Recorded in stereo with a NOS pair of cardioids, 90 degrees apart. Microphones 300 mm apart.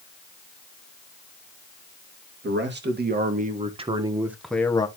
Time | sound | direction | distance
2.4 | a man speaking | 40° right | 2.5 m